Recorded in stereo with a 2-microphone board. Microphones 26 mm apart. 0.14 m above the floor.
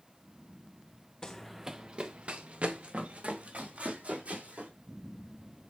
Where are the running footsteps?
20° left (ahead or behind), 0.7 m; by 4.7 s 80° right, 4.5 m.